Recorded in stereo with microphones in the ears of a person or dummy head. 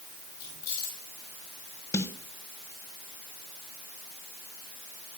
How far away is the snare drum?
About 1.2 m.